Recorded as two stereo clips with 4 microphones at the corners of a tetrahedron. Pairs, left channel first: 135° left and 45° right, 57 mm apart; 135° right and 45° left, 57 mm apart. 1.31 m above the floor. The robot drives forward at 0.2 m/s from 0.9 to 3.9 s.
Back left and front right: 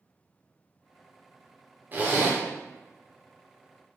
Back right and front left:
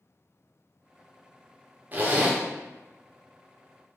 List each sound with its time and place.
1.9 s a zipper: straight ahead, 0.7 m